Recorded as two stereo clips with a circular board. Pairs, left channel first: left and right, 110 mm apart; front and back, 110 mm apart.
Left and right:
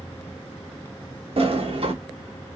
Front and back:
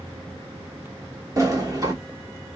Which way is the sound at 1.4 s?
120° right.